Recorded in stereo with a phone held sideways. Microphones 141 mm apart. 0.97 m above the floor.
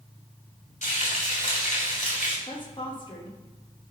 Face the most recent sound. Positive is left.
turn(degrees=35)  # may be behind; listen again after turning